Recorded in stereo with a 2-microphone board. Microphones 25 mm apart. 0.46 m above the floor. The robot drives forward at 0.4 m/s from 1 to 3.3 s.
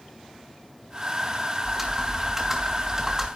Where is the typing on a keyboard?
15° right (ahead or behind), 2.5 m.